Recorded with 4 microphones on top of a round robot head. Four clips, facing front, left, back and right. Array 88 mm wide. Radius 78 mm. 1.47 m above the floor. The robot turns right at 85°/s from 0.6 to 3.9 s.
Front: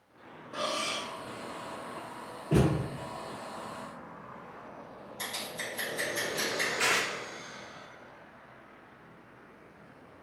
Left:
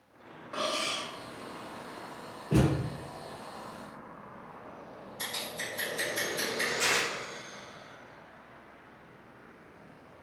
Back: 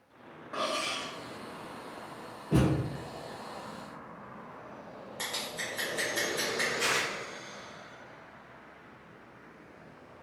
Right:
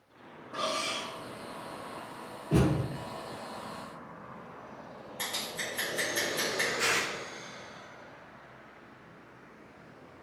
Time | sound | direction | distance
0.5 | cutlery clinking | 140° left | 0.5 m
2.5 | a thud | 25° left | 0.7 m
5.2 | scissors | 140° right | 1.0 m
6.8 | tearing paper | 15° left | 0.5 m